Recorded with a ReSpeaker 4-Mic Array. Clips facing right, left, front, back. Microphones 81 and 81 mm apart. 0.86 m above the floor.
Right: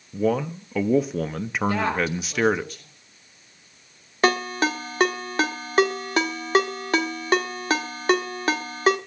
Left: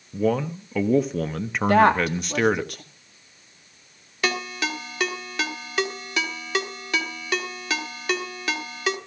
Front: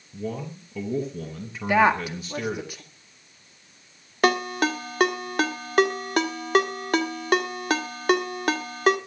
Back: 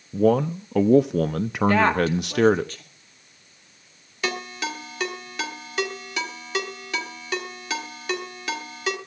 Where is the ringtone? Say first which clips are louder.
Right 6 dB, front 7 dB; 40° right, 1.6 m.